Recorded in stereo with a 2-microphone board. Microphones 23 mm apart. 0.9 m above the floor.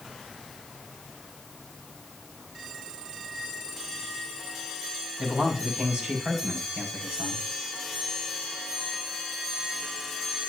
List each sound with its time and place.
5.2 s a man speaking: 60° right (ahead or behind), 7 m